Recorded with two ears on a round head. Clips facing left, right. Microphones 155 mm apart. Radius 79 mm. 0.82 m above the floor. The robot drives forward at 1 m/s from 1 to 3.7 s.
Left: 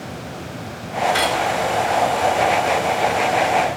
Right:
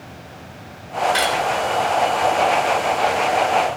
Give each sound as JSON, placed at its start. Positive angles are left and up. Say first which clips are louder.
{"t": 1.1, "sound": "cutlery clinking", "louder": "left 1 dB", "side_deg": -15, "distance_m": 2.5}